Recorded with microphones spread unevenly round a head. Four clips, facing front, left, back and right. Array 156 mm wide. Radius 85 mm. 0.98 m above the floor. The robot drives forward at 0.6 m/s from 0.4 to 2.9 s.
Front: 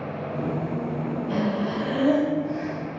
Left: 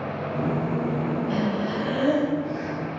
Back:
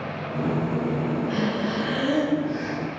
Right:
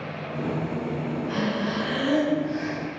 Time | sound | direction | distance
1.3 | breathing | 35° left | 5 m